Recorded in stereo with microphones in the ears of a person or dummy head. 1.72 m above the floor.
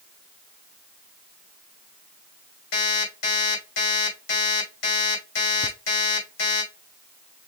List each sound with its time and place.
2.7 s an alarm clock: 65° left (ahead or behind), 3.5 m
5.6 s laughter: 15° left (ahead or behind), 0.8 m